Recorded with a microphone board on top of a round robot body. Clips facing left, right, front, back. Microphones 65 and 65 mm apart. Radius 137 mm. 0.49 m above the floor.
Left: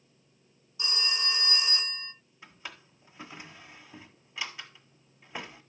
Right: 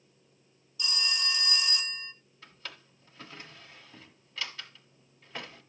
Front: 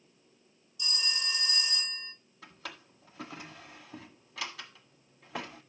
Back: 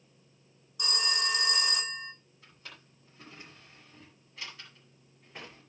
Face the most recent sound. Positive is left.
turn(degrees=15)